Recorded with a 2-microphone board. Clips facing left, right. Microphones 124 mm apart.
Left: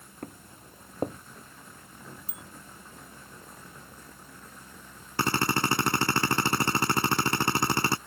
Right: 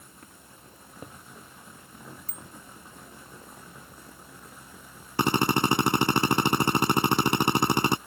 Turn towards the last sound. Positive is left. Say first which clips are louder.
# right 3 dB
turn(degrees=-20)  # may be behind; listen again after turning